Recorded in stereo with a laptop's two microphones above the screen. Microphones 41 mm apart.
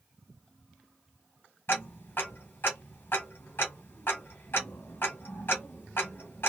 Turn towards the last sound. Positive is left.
turn(degrees=60)  # may be behind; listen again after turning